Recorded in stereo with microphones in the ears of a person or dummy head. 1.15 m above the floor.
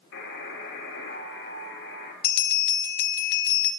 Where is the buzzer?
70° left (ahead or behind), 1.9 m.